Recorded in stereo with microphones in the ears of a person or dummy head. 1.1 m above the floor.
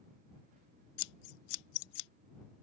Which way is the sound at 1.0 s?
60° left (ahead or behind).